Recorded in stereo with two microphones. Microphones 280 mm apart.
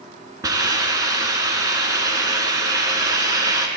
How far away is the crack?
No crack in this recording.